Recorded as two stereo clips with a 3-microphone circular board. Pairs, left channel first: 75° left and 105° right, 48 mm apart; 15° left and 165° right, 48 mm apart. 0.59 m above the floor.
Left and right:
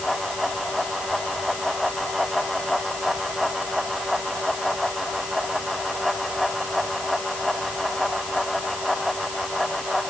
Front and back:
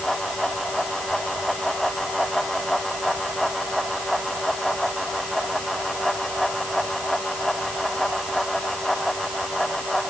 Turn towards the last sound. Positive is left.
No sound to turn to.